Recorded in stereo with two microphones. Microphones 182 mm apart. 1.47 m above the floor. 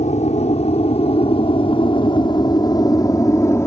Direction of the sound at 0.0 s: 40° left (ahead or behind).